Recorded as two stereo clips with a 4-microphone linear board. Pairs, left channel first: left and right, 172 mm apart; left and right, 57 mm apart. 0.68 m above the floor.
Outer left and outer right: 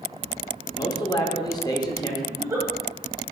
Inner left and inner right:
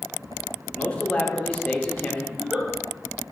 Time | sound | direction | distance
0.8 | a man speaking | 25° left (ahead or behind) | 0.5 m
2.3 | a giggle | 15° right (ahead or behind) | 1.2 m